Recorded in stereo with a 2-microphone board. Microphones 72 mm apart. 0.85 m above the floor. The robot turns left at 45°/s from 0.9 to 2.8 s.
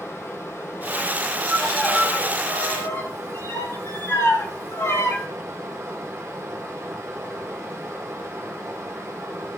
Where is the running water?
40° left, 2.5 m; by 9.6 s 45° right, 2.5 m.